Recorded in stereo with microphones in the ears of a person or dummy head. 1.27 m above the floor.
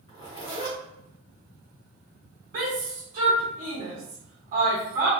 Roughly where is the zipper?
Left.